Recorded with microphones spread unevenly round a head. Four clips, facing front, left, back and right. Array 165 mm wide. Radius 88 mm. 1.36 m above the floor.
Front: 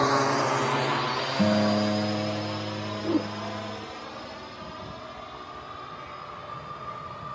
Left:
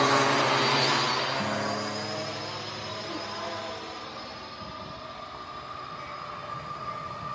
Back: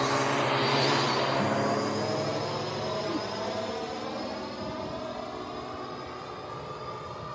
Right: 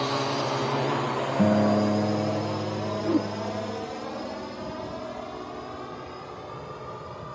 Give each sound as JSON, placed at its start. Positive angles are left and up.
{"t": 0.0, "sound": "a drone", "azimuth_deg": 40}
{"t": 1.4, "sound": "a guitar", "azimuth_deg": -55}
{"t": 3.0, "sound": "a whoosh", "azimuth_deg": -65}